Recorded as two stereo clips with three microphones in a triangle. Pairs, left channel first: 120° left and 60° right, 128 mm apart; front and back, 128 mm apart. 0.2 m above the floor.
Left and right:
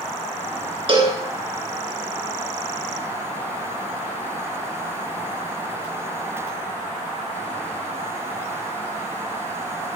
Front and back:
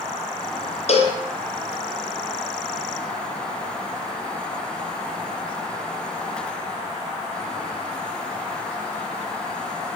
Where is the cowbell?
20° right, 2.5 m.